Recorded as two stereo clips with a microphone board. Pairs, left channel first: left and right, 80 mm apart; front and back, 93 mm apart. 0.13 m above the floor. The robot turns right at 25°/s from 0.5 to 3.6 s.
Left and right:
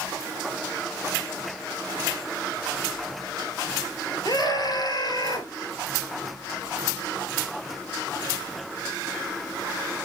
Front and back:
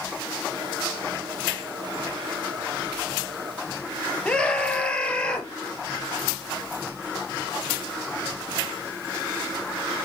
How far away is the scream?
About 2.5 m.